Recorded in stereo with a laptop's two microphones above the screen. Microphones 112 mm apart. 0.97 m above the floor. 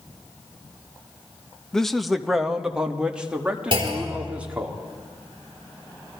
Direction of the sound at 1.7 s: 5° left (ahead or behind).